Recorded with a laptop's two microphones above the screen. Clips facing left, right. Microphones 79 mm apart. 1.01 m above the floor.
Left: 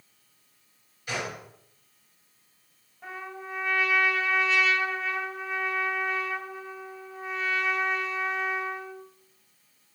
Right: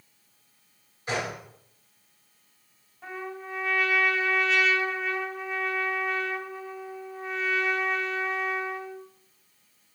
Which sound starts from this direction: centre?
A trumpet, at 3.0 s.